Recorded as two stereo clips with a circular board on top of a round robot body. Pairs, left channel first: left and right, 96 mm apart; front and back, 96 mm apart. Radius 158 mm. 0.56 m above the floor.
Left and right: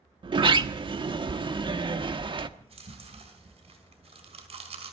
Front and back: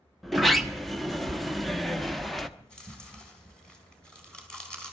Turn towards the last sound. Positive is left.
turn(degrees=-80)